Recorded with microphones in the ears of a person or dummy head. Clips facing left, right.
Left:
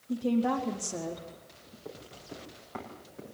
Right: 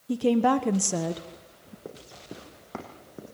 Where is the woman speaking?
75° right (ahead or behind), 1.2 m.